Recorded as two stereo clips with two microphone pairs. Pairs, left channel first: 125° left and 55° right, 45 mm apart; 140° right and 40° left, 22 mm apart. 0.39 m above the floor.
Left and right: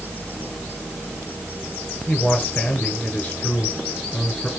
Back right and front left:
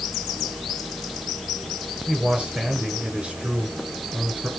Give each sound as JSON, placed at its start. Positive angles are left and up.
{"t": 2.1, "sound": "a man speaking", "azimuth_deg": 65, "distance_m": 7.5}